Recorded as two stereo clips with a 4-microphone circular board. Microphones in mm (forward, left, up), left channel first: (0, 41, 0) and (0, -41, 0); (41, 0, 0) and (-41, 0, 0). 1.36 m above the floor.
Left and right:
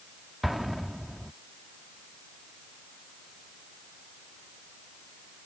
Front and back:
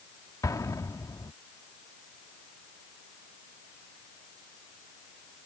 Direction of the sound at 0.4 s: Straight ahead.